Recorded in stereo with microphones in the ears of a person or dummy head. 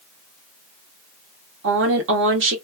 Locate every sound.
1.6 s a woman speaking: 65° right (ahead or behind), 1.4 m